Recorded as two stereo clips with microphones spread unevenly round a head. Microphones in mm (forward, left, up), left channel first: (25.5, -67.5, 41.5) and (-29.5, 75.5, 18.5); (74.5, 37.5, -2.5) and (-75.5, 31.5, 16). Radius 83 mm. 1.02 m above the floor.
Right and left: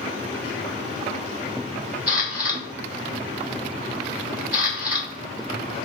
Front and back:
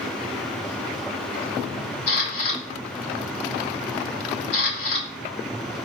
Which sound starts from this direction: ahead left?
A camera shutter, at 2.1 s.